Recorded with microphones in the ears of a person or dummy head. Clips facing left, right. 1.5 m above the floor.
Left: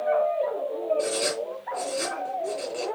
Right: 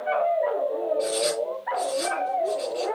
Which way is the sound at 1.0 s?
60° left (ahead or behind).